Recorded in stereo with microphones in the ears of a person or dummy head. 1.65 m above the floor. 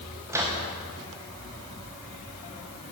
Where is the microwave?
10° right (ahead or behind), 1.3 m.